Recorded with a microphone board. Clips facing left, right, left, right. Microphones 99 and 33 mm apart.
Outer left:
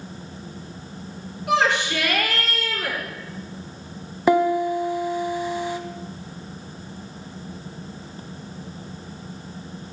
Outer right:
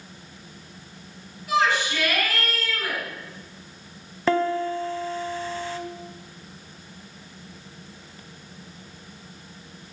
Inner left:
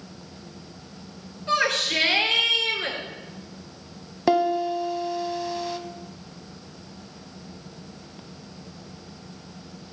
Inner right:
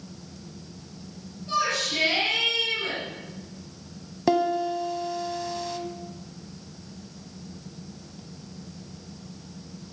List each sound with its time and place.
1.5 s a shout: 70° left (ahead or behind), 4.5 m
4.3 s a piano: 15° left (ahead or behind), 0.9 m